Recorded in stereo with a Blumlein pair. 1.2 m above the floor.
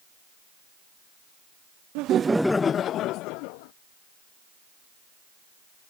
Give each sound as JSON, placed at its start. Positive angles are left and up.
{"t": 1.9, "sound": "laughter", "azimuth_deg": -45}